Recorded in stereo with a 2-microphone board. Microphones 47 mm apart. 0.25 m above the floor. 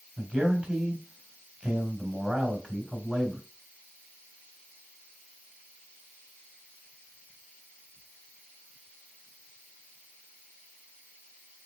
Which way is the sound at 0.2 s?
15° right (ahead or behind).